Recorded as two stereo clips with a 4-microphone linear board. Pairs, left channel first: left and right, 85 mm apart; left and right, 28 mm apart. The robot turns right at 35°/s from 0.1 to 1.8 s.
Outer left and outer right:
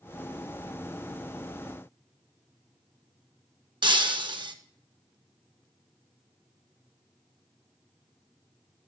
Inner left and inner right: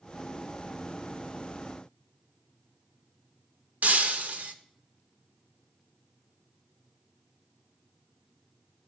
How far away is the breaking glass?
About 0.6 m.